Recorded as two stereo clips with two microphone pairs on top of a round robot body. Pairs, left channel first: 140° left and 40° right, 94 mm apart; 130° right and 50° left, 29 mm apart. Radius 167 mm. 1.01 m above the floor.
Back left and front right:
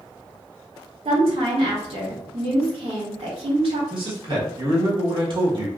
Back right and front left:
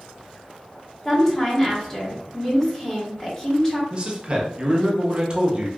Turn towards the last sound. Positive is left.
turn(degrees=0)